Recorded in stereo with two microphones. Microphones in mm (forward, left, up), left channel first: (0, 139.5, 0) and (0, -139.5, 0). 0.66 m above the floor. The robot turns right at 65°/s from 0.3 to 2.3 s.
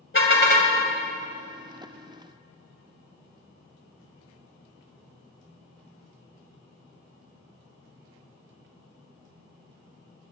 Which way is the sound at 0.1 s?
45° left (ahead or behind).